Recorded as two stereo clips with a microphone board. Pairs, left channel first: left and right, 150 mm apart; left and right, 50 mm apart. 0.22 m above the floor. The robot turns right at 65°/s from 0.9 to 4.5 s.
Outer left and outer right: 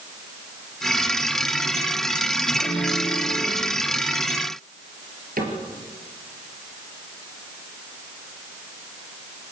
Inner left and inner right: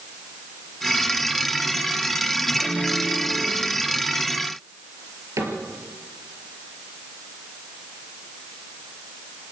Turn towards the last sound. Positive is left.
turn(degrees=-75)  # may be behind; listen again after turning